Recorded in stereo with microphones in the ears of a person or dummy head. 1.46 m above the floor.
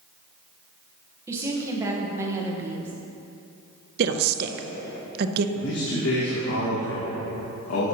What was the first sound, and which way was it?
A woman speaking, 10° right (ahead or behind).